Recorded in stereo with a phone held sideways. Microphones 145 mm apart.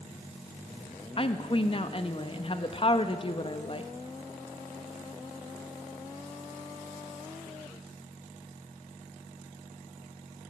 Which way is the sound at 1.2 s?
40° left (ahead or behind).